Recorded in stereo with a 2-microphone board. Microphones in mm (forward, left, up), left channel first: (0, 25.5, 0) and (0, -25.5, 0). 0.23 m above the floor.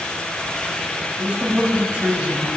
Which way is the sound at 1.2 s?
30° right (ahead or behind).